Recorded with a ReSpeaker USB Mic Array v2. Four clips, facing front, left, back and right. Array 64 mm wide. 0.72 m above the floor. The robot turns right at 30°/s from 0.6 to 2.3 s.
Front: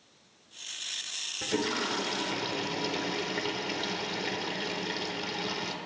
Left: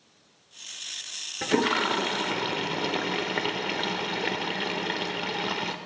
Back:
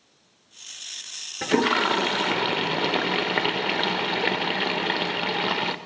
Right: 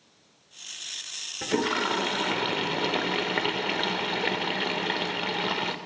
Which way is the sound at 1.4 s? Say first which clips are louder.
Left 2 dB, back 10 dB; 160° left.